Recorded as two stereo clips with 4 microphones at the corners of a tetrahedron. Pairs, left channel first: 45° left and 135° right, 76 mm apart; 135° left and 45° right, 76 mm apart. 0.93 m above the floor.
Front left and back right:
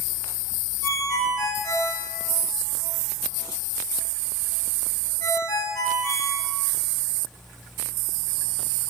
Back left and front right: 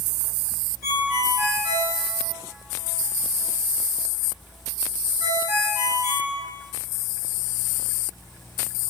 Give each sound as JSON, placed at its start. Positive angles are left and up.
{"t": 0.8, "sound": "a ringtone", "azimuth_deg": 10, "distance_m": 1.6}